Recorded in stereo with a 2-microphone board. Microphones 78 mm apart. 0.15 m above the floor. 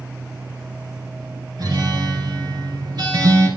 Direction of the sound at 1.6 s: 65° right (ahead or behind).